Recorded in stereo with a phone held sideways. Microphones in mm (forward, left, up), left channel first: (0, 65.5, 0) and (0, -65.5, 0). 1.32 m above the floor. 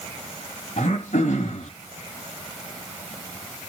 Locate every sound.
0.8 s throat clearing: 70° left (ahead or behind), 3 m